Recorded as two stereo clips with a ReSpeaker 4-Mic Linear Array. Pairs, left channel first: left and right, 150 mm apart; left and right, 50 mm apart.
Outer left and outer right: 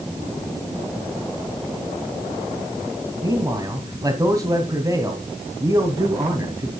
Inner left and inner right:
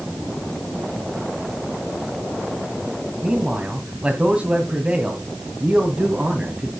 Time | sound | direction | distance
3.2 | a man speaking | 25° right (ahead or behind) | 2.0 m